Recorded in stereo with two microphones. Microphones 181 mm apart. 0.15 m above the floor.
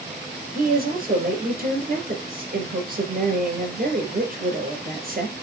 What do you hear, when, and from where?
0.6 s a woman speaking: 55° right (ahead or behind), 3.5 m